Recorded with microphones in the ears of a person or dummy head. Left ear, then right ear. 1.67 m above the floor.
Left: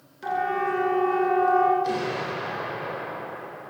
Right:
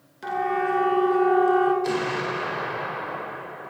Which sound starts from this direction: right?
An explosion, at 1.8 s.